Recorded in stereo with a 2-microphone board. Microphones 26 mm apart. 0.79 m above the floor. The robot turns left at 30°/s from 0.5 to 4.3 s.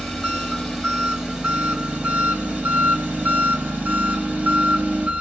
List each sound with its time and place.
0.0 s an engine running: 5° left, 1.7 m; by 5.2 s 110° right, 1.7 m